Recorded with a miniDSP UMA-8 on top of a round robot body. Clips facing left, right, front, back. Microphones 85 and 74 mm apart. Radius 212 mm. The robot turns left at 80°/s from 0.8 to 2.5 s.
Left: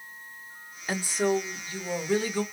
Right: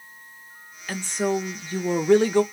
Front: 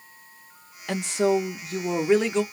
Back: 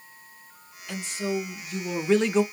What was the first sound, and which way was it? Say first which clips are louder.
A woman speaking: right 1 dB, front 8 dB; 25° left.